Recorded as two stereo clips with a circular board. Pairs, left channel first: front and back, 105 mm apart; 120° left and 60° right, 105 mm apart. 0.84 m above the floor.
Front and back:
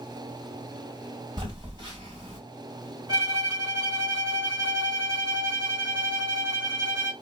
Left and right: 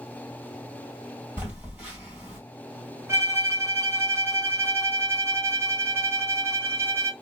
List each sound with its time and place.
1.4 s a phone buzzing: 130° right, 2 m
3.1 s a violin: 125° right, 1.2 m